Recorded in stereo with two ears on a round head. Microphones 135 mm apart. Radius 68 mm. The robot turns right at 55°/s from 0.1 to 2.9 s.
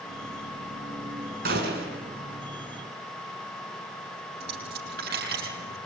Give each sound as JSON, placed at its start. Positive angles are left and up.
{"t": 1.4, "sound": "a gunshot", "azimuth_deg": -105, "distance_m": 4.5}
{"t": 4.4, "sound": "a dropped coin", "side_deg": -70, "distance_m": 6.0}